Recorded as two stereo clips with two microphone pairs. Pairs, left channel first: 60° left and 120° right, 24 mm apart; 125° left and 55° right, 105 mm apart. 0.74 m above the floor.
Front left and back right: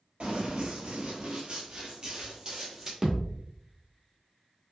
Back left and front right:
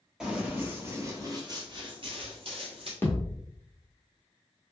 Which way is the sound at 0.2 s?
140° right.